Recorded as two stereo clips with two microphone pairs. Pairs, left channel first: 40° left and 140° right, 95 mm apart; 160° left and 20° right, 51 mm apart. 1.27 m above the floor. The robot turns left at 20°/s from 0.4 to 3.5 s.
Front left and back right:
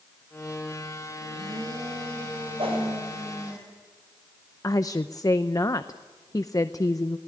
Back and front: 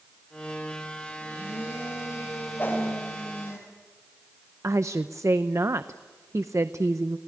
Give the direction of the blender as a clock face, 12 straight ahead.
5 o'clock.